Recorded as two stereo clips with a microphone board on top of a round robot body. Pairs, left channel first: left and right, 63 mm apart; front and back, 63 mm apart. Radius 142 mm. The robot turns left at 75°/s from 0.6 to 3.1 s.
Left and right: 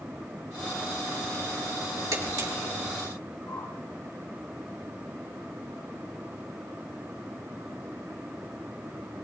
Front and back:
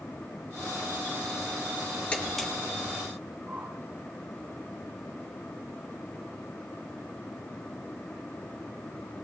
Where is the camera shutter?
70° right, 3 m; by 2.5 s 95° right, 3 m.